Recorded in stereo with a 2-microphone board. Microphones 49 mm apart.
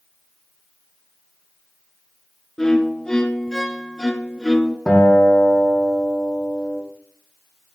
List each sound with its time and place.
2.6 s a violin: 10° left (ahead or behind), 0.9 m
4.9 s a guitar: 10° left (ahead or behind), 6 m